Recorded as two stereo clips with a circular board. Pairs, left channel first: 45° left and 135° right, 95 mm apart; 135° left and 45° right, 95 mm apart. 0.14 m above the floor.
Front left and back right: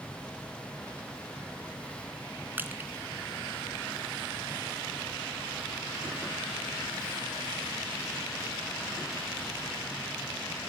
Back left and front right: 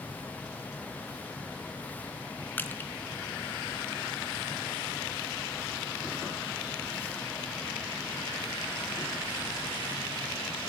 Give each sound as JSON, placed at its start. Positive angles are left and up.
{"t": 2.6, "sound": "crushing", "azimuth_deg": 180, "distance_m": 1.6}